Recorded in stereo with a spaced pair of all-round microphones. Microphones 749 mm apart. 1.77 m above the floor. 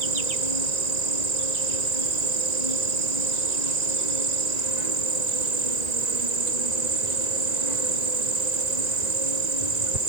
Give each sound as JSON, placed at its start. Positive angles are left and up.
{"t": 0.0, "sound": "an insect", "side_deg": -65}